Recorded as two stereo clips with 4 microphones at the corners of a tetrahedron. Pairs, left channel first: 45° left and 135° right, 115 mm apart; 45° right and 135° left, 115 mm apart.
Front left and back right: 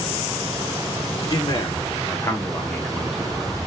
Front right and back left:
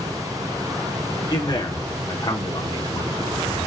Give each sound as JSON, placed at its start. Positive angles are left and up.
{"t": 1.3, "sound": "a man speaking", "azimuth_deg": 0, "distance_m": 1.3}